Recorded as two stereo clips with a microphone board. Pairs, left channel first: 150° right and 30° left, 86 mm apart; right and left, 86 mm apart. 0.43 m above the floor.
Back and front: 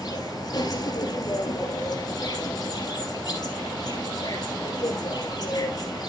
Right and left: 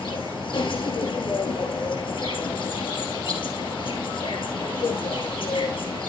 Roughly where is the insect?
Right.